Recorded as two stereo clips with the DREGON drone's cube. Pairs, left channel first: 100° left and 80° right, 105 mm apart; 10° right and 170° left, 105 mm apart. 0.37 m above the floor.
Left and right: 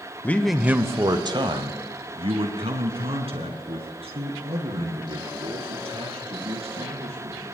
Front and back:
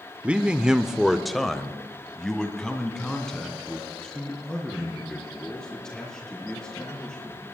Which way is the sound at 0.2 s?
110° left.